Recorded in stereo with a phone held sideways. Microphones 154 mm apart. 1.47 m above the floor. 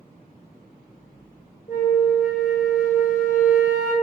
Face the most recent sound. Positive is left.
turn(degrees=55)  # may be behind; listen again after turning